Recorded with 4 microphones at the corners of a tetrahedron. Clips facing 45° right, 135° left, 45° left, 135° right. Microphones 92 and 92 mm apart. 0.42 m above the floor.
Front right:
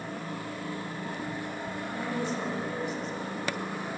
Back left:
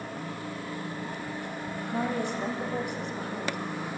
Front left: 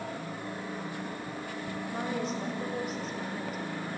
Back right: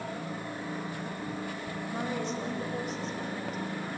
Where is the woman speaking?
130° left, 1.8 m.